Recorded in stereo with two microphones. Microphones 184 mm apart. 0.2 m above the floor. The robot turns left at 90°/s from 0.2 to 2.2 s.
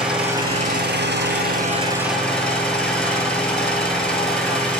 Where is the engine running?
5° right, 1.4 m; by 4.8 s 175° left, 1.4 m.